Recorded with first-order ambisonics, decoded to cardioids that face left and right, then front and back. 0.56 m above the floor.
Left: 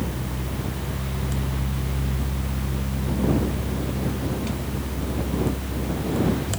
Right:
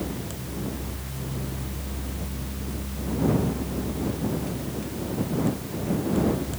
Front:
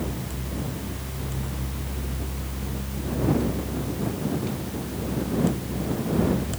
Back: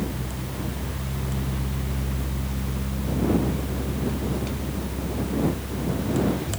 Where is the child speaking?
I don't hear a child speaking.